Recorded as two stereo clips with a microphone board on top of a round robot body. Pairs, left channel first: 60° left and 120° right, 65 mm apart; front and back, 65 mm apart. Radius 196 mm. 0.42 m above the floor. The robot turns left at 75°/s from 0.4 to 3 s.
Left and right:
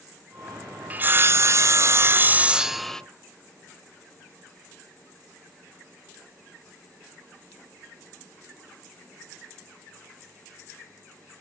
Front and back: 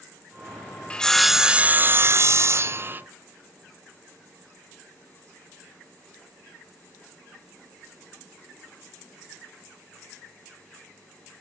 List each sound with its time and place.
0.9 s sawing: 65° right, 0.5 m; by 3.0 s 140° left, 0.5 m